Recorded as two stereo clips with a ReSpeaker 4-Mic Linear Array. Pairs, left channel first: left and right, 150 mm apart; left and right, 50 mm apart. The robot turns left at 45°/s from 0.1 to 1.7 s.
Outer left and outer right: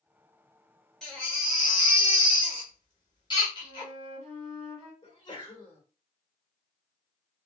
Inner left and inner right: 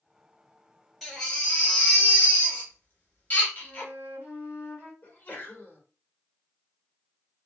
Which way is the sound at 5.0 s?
30° left (ahead or behind).